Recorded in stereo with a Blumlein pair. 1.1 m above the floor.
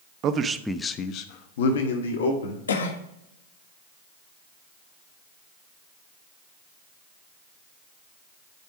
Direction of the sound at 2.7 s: 65° left.